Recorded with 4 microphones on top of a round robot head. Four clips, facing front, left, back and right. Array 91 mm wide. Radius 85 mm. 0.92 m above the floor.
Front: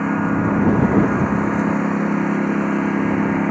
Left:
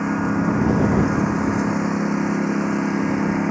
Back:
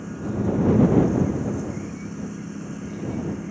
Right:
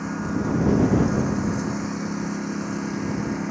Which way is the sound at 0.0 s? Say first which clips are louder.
Left 6 dB, front 8 dB; 25° left.